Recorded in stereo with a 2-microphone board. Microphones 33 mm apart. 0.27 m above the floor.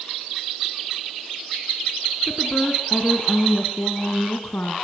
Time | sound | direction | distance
2.3 | a woman speaking | 15° left (ahead or behind) | 2.5 m